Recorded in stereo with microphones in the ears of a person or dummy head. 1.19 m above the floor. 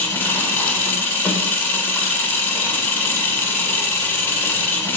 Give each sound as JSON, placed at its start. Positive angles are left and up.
{"t": 0.0, "sound": "an engine running", "side_deg": 5, "distance_m": 2.0}